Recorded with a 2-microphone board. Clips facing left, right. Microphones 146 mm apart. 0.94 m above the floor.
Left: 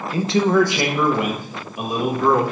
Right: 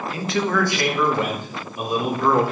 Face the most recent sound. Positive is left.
turn(degrees=0)  # may be behind; listen again after turning